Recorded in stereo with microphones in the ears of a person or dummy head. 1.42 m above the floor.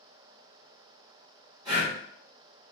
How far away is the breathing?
About 1.1 m.